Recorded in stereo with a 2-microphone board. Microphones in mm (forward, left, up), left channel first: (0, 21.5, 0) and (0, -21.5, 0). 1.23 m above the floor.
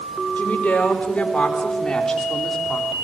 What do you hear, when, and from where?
0.4 s a woman speaking: 40° left (ahead or behind), 4.5 m; by 2.9 s centre (ahead or behind), 3 m